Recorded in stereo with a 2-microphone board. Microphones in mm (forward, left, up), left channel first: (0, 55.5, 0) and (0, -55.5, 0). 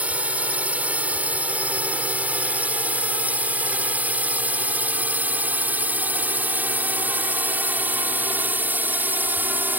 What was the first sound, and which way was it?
A drone, 15° right (ahead or behind).